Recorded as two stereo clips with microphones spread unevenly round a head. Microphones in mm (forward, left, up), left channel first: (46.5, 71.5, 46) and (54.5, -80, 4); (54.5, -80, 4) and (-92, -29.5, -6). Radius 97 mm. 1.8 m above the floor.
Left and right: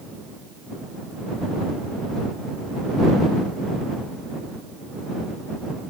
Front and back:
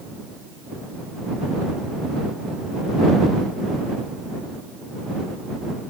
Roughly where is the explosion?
No explosion in this recording.